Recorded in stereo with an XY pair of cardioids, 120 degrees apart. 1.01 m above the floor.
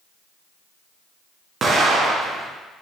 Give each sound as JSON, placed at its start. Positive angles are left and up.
{"t": 1.6, "sound": "an explosion", "azimuth_deg": -40, "distance_m": 0.7}